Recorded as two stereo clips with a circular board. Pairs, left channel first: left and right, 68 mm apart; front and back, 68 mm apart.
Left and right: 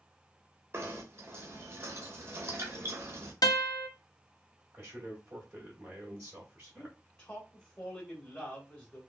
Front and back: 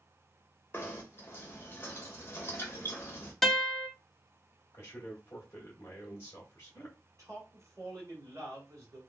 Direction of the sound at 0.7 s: 50° right.